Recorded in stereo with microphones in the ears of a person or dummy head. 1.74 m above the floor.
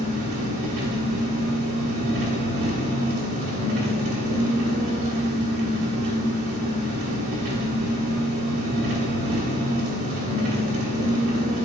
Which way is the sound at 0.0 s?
50° right (ahead or behind).